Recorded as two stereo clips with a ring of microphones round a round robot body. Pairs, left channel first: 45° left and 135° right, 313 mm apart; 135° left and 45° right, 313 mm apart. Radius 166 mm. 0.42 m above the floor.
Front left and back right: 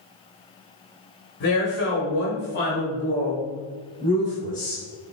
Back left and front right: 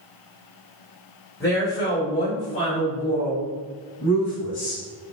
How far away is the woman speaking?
About 1.6 m.